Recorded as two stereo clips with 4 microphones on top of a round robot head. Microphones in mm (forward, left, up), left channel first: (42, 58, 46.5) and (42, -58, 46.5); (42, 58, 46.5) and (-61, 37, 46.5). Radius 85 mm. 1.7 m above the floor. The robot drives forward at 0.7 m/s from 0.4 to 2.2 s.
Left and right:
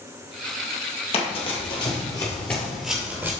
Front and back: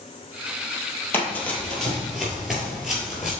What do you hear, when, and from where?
1.1 s running footsteps: 75° left, 2.5 m; by 3.3 s 90° right, 1.7 m